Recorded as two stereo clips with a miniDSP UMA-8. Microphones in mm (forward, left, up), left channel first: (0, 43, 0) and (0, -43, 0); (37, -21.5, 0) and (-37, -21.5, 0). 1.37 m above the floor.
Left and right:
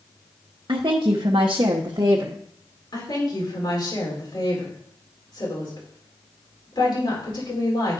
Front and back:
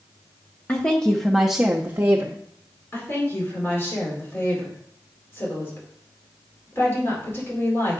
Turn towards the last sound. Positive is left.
turn(degrees=60)